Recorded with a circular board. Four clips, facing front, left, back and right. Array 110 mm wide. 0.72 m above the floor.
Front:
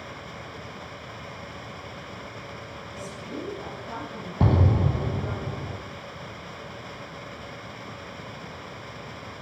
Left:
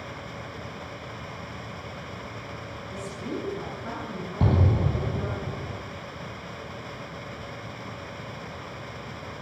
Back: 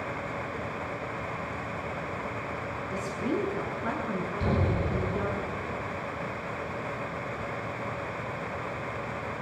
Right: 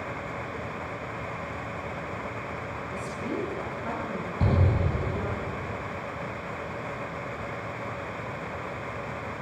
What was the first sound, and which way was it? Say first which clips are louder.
A woman speaking: even, back 7 dB; 175° right.